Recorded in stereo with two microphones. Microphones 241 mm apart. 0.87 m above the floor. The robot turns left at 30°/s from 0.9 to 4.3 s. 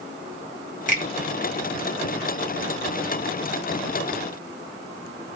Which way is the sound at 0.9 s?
35° left (ahead or behind).